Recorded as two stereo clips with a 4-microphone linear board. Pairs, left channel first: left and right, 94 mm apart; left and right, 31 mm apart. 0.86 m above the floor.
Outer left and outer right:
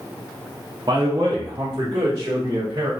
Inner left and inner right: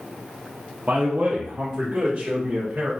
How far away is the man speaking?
About 0.6 m.